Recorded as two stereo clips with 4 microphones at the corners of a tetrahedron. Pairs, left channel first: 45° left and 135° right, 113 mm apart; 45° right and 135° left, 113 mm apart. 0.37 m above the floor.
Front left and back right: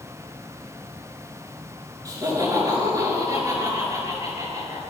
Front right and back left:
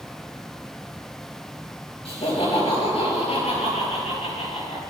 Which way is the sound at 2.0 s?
75° right.